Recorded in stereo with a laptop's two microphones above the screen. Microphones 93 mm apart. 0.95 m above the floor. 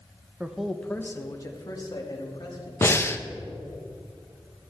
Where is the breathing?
25° left (ahead or behind), 0.6 m.